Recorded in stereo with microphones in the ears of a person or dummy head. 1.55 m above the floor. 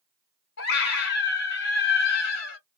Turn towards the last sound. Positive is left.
turn(degrees=80)